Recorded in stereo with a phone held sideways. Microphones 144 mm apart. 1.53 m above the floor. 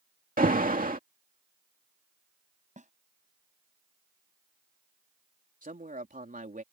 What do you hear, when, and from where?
0.4 s an alarm: 75° right (ahead or behind)
2.8 s a snare drum: 55° right (ahead or behind)
5.6 s a man speaking: 70° right (ahead or behind)